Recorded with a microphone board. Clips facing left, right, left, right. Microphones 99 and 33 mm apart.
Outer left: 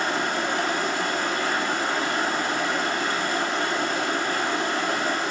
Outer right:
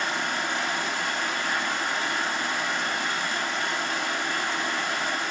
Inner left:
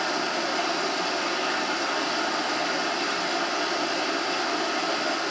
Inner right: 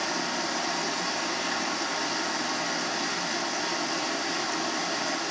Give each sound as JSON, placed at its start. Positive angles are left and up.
{"t": 0.0, "sound": "running water", "side_deg": 40, "distance_m": 3.5}